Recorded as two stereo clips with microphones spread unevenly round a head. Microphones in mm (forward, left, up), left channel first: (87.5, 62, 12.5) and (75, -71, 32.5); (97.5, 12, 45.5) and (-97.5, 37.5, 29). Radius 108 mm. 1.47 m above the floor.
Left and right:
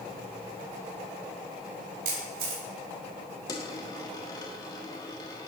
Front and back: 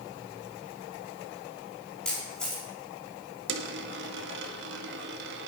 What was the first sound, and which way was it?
A camera shutter, 95° right.